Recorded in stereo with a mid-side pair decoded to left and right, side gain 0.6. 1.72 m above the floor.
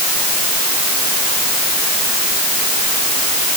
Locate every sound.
Only background noise.